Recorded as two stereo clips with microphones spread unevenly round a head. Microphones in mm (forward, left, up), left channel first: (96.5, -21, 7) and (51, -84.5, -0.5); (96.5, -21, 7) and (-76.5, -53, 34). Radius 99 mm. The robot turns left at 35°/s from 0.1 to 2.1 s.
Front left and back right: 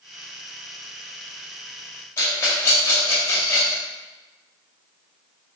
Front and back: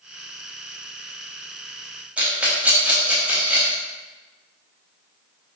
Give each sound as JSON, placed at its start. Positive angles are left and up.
{"t": 2.2, "sound": "a rattle", "azimuth_deg": 100, "distance_m": 0.6}